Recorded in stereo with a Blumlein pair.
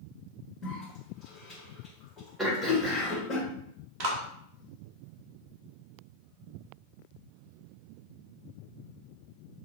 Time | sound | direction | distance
0.6 | a cough | 20° left | 1.6 m
2.4 | throat clearing | 10° right | 1.2 m
4.0 | a clap | 40° right | 1.1 m